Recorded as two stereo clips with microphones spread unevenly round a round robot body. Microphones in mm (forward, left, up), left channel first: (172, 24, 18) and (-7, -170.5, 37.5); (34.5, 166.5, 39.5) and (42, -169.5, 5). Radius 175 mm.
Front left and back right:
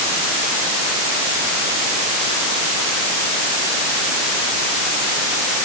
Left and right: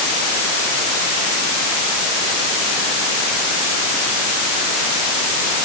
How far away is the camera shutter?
No camera shutter in this recording.